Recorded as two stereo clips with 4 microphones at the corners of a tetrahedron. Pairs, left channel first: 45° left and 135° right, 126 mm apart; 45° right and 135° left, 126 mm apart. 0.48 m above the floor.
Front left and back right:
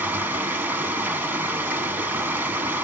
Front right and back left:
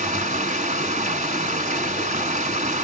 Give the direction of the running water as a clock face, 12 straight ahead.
7 o'clock.